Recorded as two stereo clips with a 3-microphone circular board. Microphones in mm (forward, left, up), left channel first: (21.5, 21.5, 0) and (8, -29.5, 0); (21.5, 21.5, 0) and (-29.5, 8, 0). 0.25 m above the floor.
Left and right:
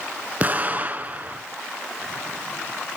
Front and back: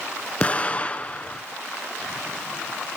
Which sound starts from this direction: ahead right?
An explosion, at 0.4 s.